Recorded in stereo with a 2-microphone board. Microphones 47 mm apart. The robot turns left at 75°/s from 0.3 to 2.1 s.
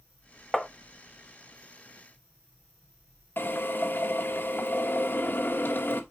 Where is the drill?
45° left (ahead or behind), 1.8 m.